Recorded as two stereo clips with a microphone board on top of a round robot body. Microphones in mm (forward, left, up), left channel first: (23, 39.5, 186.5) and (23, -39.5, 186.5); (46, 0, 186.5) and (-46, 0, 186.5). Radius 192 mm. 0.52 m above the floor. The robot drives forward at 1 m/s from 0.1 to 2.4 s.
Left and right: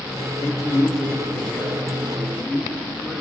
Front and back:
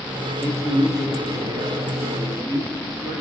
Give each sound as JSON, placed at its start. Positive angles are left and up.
{"t": 0.4, "sound": "a man speaking", "azimuth_deg": 120, "distance_m": 1.3}